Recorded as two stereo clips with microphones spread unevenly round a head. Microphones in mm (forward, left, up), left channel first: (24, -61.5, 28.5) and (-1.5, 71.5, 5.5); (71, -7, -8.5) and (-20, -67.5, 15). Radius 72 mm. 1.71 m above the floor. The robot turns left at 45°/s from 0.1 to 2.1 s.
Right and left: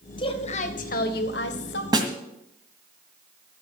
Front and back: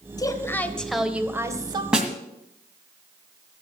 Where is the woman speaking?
25° right, 1.6 m; by 1.8 s 100° right, 1.6 m.